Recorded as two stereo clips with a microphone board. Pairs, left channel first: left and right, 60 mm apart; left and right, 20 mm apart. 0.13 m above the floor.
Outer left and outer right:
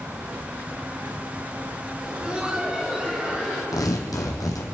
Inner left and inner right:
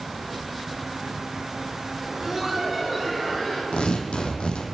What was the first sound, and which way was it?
Laughter, 15° right (ahead or behind).